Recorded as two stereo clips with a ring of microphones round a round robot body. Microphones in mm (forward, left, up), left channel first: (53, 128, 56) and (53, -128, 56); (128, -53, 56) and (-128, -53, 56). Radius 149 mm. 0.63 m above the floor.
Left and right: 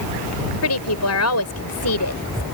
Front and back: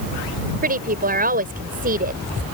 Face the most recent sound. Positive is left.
turn(degrees=120)